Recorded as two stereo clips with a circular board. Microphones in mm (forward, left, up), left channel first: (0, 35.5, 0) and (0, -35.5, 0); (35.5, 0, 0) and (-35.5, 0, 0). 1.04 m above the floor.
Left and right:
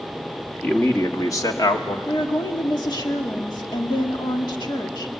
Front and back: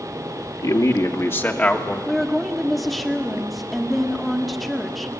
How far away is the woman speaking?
About 2 m.